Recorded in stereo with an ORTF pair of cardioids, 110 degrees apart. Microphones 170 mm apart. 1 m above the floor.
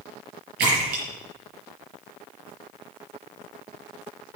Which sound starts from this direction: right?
A splash, at 0.6 s.